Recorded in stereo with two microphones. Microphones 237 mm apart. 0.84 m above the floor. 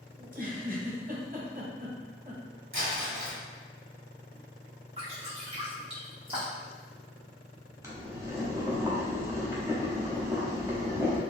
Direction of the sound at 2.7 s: 60° right (ahead or behind).